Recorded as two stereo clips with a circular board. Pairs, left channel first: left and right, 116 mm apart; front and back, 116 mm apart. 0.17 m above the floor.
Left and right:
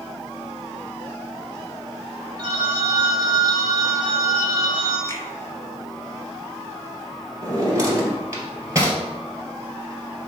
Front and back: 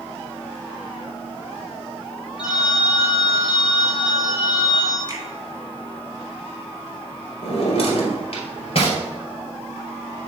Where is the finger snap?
40° right, 1.9 m.